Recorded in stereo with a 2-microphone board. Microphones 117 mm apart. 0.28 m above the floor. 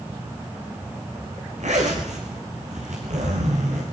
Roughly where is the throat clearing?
No throat clearing in this recording.